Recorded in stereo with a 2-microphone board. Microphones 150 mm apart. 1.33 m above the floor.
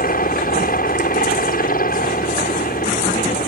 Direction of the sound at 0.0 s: 75° left (ahead or behind).